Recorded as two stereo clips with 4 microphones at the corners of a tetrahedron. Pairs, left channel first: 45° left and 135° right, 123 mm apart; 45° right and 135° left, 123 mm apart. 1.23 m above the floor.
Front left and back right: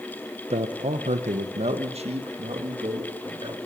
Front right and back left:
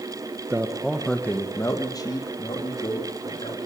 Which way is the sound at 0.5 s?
155° right.